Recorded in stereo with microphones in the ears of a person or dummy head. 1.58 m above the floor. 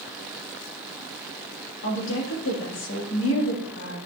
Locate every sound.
1.8 s a woman speaking: 75° left (ahead or behind), 3 m